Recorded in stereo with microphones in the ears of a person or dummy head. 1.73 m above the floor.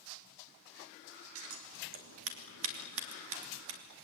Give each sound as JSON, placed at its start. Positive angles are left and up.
{"t": 1.4, "sound": "scissors", "side_deg": -75, "distance_m": 3.0}